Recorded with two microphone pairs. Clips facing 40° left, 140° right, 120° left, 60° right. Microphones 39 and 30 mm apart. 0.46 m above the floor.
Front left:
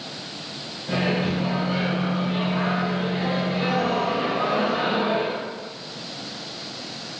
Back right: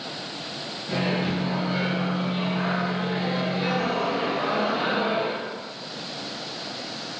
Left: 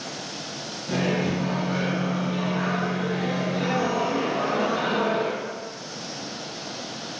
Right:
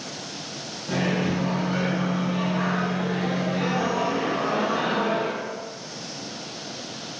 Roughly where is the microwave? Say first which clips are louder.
Front left 2 dB, even; ahead.